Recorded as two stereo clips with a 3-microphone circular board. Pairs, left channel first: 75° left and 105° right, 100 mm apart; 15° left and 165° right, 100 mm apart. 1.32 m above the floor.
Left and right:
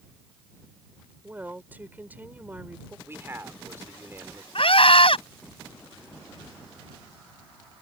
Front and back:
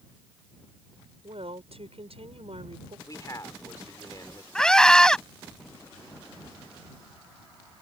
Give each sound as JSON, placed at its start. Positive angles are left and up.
{"t": 1.2, "sound": "a woman speaking", "azimuth_deg": 180}
{"t": 3.1, "sound": "a man speaking", "azimuth_deg": -40}
{"t": 4.5, "sound": "a scream", "azimuth_deg": 100}